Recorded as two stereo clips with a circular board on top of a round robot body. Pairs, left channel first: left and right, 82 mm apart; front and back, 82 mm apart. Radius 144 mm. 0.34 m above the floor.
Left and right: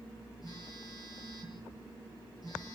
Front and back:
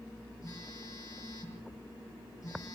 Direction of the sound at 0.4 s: 45° left.